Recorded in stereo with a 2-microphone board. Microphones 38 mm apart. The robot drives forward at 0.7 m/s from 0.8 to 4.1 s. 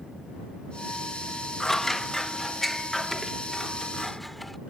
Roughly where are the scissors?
Centre.